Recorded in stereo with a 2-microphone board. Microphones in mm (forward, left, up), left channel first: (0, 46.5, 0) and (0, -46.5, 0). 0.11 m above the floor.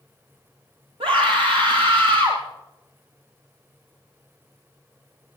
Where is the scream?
80° right, 8.5 m.